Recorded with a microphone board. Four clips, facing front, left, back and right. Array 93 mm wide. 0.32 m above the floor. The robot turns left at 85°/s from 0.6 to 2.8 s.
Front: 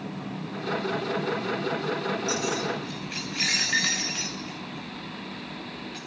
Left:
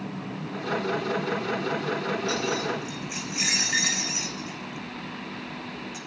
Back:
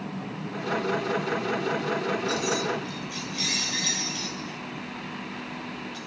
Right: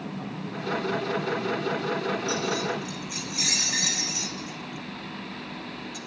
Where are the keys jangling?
75° left, 1.3 m; by 6.0 s 30° left, 1.3 m.